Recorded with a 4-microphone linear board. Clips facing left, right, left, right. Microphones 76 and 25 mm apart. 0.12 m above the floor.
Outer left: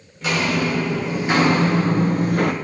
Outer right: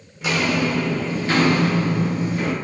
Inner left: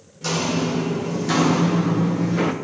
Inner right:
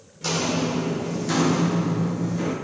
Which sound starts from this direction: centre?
Footsteps, at 0.2 s.